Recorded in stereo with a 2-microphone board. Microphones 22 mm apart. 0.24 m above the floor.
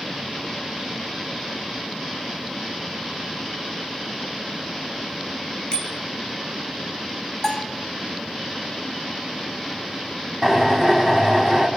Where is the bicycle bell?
45° left (ahead or behind), 3 m.